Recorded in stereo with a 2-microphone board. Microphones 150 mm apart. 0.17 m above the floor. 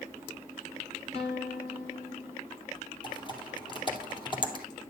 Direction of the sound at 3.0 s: 35° left (ahead or behind).